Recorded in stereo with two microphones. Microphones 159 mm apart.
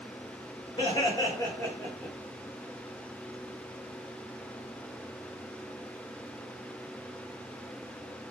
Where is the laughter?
30° left (ahead or behind), 1.8 m; by 2.1 s 5° left (ahead or behind), 1.9 m.